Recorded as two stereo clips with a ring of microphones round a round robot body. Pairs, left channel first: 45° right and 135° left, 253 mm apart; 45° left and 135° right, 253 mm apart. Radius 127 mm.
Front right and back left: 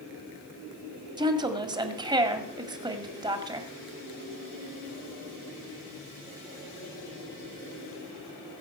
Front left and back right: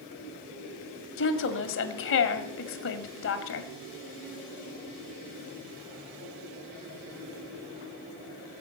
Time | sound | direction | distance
1.2 | a woman speaking | 65° left | 1.9 m